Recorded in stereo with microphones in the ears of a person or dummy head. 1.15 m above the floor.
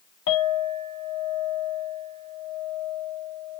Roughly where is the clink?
Left.